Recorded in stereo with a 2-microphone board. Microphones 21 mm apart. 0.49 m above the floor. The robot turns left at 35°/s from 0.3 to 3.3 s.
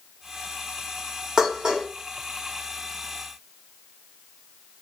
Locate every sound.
1.4 s dishes clattering: 35° right (ahead or behind), 1.0 m; by 1.9 s 45° right (ahead or behind), 1.0 m